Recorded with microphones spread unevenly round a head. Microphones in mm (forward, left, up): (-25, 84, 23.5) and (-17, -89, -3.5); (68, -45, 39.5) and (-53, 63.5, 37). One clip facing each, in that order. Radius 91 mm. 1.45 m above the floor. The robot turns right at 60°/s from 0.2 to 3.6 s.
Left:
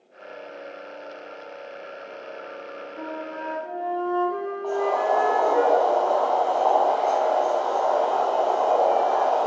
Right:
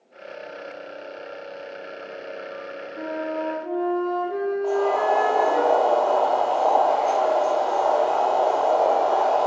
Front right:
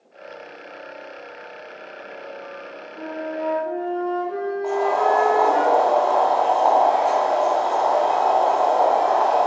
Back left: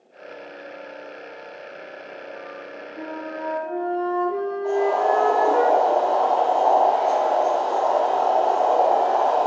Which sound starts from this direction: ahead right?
Boiling, at 4.6 s.